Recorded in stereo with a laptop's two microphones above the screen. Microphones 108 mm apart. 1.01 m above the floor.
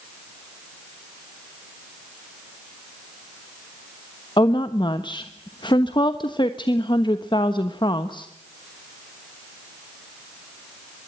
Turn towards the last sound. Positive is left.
turn(degrees=45)  # may be behind; listen again after turning